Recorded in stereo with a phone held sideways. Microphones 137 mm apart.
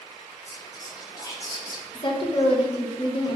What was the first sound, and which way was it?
Whispering, 30° left (ahead or behind).